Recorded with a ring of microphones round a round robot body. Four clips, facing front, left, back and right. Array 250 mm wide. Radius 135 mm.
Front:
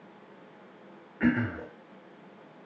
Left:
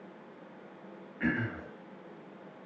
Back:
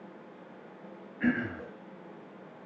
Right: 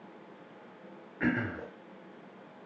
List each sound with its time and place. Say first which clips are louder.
1.2 s throat clearing: right 2 dB, front 3 dB; 25° right, 0.6 m